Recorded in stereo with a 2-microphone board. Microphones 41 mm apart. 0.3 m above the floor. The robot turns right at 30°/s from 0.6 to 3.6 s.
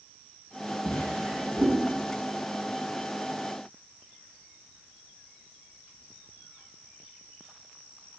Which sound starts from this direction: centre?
A drawer, at 0.8 s.